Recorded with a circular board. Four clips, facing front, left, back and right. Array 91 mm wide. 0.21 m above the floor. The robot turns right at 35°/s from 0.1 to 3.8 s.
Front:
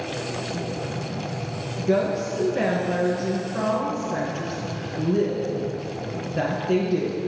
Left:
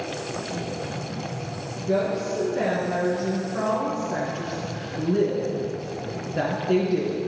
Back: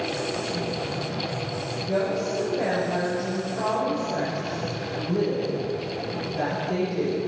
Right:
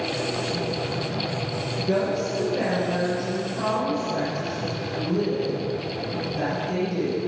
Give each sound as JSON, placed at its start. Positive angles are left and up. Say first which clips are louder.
{"t": 1.8, "sound": "a woman speaking", "louder": "even, front 4 dB", "azimuth_deg": -20, "distance_m": 2.5}